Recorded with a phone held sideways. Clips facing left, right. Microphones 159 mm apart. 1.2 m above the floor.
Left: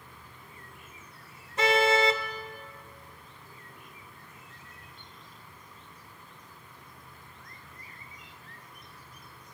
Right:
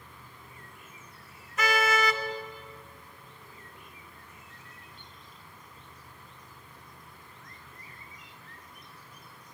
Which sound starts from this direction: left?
A car horn, at 1.6 s.